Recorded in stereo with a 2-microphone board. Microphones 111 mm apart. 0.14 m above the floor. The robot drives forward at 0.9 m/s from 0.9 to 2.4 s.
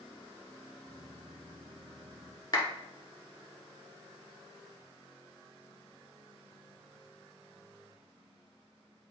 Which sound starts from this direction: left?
A clap, at 2.5 s.